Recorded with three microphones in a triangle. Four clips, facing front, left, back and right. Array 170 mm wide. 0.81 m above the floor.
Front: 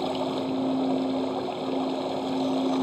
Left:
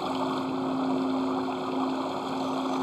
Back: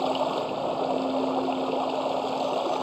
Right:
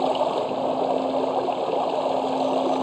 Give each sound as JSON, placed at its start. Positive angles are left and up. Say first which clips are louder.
{"t": 0.0, "sound": "running water", "louder": "right 7 dB, back 2 dB", "azimuth_deg": -100}